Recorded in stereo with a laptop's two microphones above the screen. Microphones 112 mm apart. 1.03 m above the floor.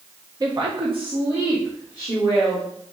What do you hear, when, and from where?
0.4 s a woman speaking: 35° right (ahead or behind), 0.7 m; by 2.6 s 50° right (ahead or behind), 2 m